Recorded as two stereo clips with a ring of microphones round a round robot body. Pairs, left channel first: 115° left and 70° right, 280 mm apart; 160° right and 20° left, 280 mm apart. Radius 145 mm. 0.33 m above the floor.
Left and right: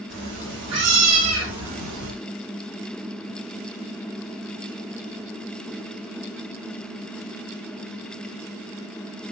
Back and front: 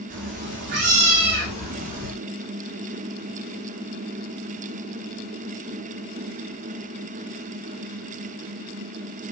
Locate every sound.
0.1 s a cat meowing: 30° right, 6 m; by 2.1 s 40° right, 6 m